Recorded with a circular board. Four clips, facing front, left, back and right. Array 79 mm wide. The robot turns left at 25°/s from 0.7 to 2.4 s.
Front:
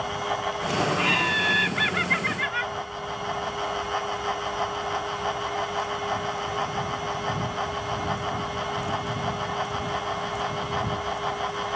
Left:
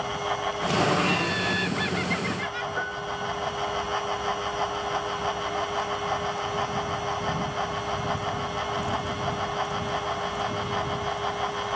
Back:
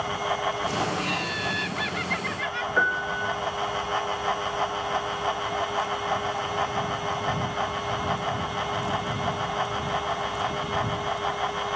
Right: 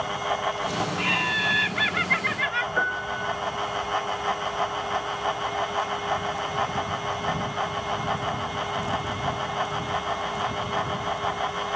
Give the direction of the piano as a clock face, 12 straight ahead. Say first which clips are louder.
Right 4 dB, back 8 dB; 5 o'clock.